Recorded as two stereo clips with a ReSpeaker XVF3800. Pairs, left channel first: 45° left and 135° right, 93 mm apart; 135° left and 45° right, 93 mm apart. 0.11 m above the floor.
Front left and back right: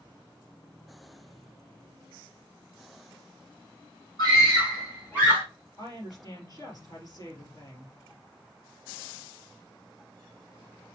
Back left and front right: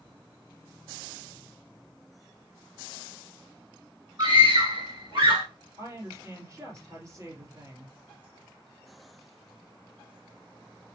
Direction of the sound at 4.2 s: 10° right.